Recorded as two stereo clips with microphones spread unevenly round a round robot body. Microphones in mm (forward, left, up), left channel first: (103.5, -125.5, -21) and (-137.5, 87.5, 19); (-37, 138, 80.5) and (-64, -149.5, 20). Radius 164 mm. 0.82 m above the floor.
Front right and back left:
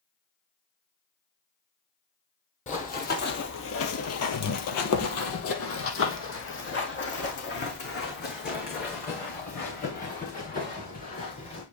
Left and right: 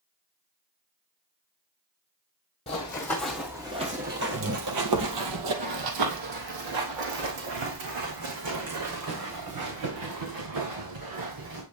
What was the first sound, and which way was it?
Running footsteps, 30° left.